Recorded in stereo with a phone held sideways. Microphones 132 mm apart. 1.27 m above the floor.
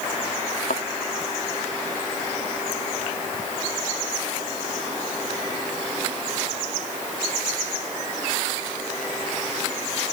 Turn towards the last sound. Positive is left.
turn(degrees=75)  # may be behind; listen again after turning